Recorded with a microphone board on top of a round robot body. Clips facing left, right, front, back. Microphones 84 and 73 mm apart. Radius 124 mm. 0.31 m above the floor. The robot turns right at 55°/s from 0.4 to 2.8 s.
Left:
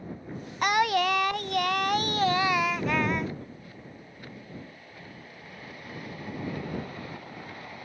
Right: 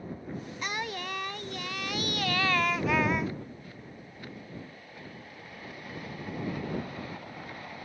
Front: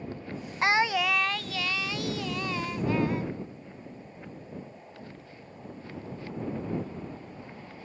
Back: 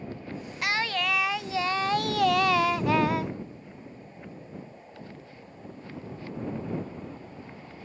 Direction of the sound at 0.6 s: 60° left.